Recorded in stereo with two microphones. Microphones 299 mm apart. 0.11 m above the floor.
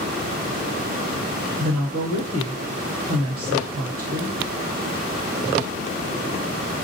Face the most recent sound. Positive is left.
turn(degrees=-30)  # may be behind; listen again after turning